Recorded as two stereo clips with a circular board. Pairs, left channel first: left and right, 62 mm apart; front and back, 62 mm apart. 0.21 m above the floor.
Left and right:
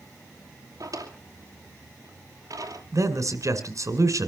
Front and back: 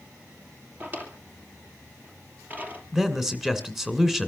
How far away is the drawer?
About 2.5 m.